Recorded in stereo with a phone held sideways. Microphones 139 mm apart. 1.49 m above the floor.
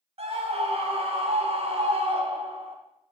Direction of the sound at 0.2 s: 45° right (ahead or behind).